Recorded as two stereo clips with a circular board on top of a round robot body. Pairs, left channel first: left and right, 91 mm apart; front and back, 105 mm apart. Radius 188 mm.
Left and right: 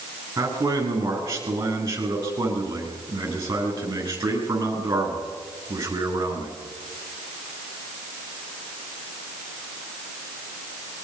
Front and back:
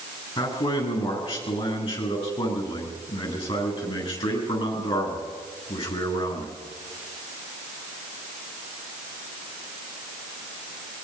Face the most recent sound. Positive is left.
turn(degrees=-30)